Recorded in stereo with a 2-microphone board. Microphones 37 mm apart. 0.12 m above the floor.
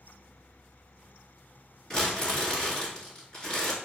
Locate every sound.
1.9 s crumpling: 25° left (ahead or behind), 2 m